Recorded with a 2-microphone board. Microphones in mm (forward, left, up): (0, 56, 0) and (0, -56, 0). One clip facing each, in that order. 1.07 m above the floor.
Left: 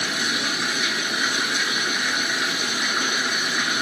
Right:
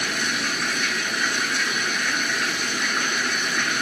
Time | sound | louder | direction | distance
0.0 | running water | even | 10° left (ahead or behind) | 1.4 m